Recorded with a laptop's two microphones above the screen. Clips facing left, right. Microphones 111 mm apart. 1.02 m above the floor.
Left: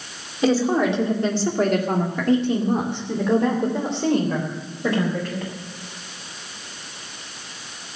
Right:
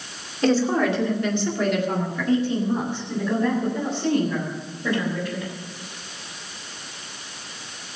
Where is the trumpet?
No trumpet in this recording.